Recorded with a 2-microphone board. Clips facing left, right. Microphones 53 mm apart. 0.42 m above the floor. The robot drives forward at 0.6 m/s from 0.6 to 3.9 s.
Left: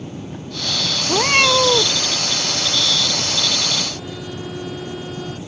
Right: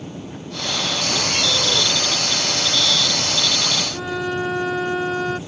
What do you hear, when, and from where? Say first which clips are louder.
1.1 s a cat meowing: left 11 dB; 70° left (ahead or behind); by 2.0 s 80° left
3.9 s a violin: right 7 dB; 85° right